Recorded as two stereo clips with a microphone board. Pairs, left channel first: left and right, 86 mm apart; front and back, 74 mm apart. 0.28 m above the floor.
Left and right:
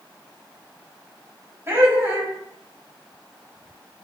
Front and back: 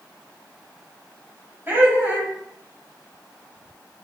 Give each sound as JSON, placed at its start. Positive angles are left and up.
{"t": 1.7, "sound": "laughter", "azimuth_deg": -135, "distance_m": 1.5}